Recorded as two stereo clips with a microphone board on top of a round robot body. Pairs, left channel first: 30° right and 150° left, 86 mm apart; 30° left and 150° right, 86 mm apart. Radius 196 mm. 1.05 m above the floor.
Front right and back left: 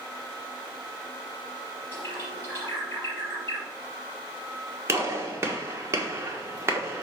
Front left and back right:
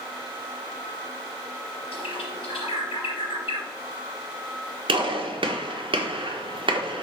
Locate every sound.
1.9 s a bird: 30° left, 4 m
4.9 s a gunshot: 155° right, 1.9 m